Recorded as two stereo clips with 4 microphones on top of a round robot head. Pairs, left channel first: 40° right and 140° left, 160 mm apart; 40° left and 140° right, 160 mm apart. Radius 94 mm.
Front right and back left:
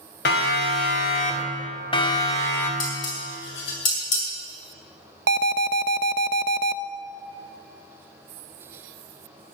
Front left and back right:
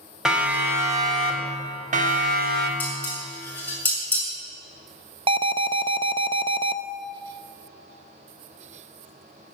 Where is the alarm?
160° left, 0.5 m.